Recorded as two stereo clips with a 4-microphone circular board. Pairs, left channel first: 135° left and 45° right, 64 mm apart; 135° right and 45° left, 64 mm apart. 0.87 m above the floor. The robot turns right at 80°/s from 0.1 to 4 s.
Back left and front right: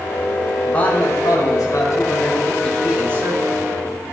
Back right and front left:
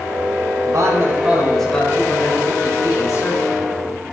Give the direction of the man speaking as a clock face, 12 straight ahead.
10 o'clock.